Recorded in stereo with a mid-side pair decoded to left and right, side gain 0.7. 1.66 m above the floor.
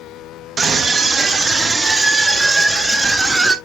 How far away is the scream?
About 2.5 m.